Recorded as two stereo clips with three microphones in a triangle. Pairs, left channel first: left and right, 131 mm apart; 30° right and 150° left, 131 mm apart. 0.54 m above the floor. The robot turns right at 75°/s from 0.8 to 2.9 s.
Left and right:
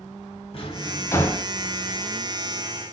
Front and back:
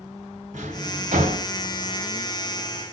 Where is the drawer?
130° left, 1.4 m; by 1.5 s straight behind, 1.4 m.